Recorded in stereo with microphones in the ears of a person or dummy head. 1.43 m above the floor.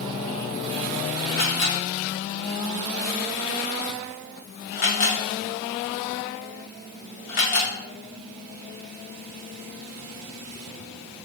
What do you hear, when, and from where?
1.4 s a camera shutter: 45° left (ahead or behind), 0.9 m